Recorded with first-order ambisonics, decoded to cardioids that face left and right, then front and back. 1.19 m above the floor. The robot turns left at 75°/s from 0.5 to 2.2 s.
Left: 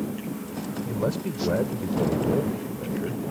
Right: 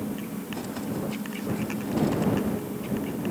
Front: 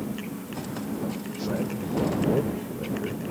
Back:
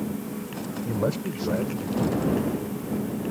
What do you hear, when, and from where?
0.8 s a man speaking: 150° left; by 3.2 s 50° left